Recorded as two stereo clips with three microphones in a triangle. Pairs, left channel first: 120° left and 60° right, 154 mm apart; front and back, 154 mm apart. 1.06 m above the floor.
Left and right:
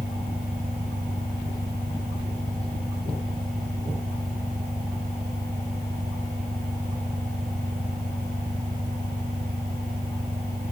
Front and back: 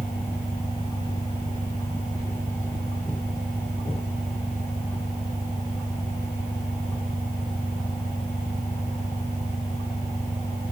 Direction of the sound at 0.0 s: 40° right.